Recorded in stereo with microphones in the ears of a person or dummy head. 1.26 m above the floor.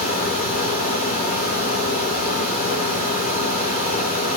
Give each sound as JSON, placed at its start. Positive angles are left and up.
{"t": 0.0, "sound": "a fan", "side_deg": 45, "distance_m": 1.3}